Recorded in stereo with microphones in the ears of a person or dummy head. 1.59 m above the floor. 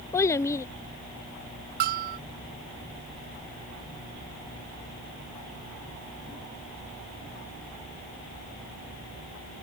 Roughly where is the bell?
Right.